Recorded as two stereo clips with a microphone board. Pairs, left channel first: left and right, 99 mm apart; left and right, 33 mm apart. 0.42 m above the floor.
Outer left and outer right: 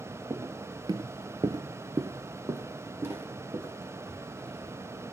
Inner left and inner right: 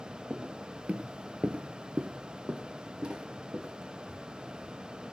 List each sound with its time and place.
0.3 s footsteps: 25° right (ahead or behind), 0.7 m; by 4.7 s 20° right (ahead or behind), 2.5 m